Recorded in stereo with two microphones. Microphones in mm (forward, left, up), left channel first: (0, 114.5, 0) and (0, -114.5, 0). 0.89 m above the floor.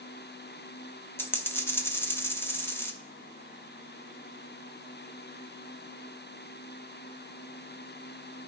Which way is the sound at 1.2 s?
10° left (ahead or behind).